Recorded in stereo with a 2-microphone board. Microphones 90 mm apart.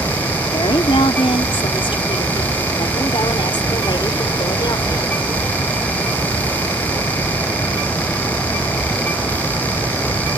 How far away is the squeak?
I don't hear a squeak.